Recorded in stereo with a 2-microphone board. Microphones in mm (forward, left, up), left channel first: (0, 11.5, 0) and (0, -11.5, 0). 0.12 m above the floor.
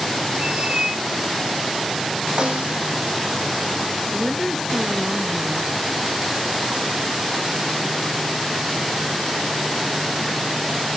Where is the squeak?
50° right (ahead or behind), 1.2 m.